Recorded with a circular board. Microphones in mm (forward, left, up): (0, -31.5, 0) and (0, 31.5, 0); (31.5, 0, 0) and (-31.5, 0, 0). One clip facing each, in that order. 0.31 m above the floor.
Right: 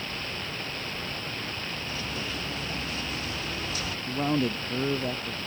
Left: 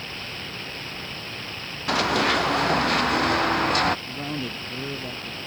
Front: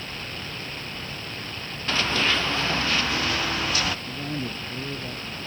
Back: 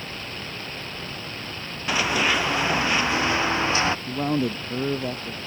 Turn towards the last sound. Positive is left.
turn(degrees=-160)